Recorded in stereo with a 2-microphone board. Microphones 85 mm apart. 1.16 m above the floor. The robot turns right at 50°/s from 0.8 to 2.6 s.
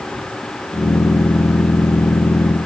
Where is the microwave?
No microwave in this recording.